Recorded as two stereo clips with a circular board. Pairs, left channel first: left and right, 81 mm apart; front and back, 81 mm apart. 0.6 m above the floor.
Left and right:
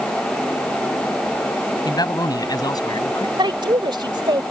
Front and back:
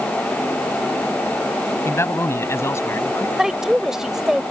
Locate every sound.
1.9 s a man speaking: 60° left; by 3.3 s 55° left
3.4 s a woman speaking: 95° right